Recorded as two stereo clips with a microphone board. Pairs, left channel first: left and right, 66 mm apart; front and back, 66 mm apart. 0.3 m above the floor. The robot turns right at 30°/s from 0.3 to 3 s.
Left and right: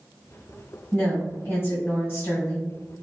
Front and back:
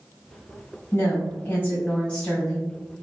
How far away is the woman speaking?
About 1.4 m.